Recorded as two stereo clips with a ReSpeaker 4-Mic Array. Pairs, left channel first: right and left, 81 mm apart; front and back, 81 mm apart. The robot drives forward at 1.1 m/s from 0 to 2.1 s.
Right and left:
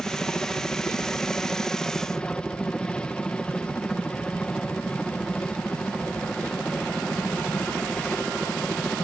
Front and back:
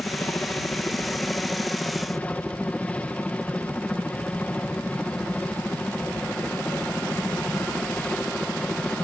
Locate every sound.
0.0 s a helicopter: 25° right; by 9.1 s 35° right